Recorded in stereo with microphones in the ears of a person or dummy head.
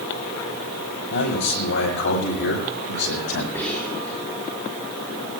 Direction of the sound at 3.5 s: 10° left (ahead or behind).